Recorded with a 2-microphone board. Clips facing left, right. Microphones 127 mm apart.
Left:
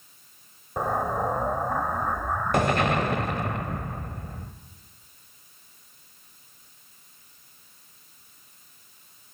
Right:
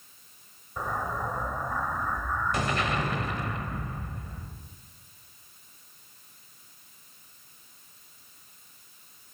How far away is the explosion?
About 1.0 m.